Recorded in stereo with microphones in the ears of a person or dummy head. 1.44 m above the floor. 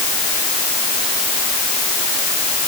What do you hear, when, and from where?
Only background noise.